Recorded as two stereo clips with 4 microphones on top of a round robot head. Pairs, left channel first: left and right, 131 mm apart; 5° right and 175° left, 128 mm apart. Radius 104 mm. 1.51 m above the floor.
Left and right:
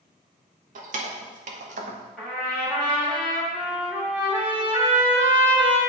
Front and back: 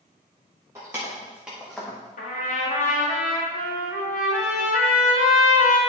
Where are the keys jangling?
105° right, 1.3 m; by 2.0 s 80° right, 0.7 m.